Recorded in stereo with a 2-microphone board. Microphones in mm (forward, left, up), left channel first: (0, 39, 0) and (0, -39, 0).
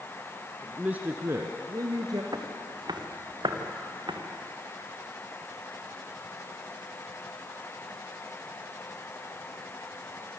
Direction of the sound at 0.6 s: 10° right (ahead or behind).